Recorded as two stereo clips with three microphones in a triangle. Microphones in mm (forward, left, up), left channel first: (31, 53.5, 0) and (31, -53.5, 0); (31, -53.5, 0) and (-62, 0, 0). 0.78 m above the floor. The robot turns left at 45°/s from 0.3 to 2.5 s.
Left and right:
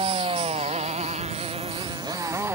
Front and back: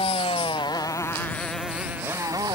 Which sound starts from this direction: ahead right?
A motorcycle, at 0.0 s.